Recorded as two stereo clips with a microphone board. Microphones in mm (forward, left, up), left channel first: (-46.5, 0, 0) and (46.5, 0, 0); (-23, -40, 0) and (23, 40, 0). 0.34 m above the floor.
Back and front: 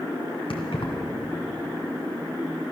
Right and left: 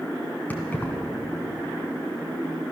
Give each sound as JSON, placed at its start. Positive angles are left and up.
{"t": 0.5, "sound": "keys jangling", "azimuth_deg": 170, "distance_m": 2.0}